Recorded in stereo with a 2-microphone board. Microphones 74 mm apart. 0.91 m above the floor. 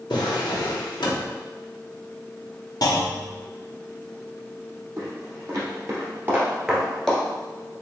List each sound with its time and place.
0.1 s a drawer: 85° left, 0.9 m
2.8 s a clunk: 60° left (ahead or behind), 0.6 m
5.0 s footsteps: 55° right (ahead or behind), 1.8 m; by 7.2 s 10° left (ahead or behind), 1.0 m